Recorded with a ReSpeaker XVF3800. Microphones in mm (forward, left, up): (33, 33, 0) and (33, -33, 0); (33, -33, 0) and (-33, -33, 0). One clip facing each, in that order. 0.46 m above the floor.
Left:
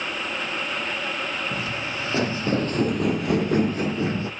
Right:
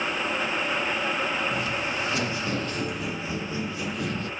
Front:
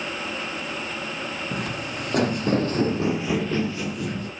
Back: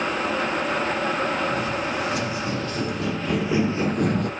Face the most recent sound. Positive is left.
turn(degrees=155)